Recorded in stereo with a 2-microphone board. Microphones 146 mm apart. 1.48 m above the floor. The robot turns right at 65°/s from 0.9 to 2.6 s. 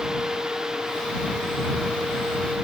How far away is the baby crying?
I don't hear a baby crying.